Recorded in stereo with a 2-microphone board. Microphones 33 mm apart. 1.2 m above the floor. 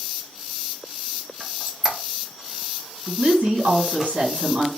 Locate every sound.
1.4 s a squeak: 15° right (ahead or behind), 0.5 m
3.1 s a woman speaking: 75° right (ahead or behind), 1.4 m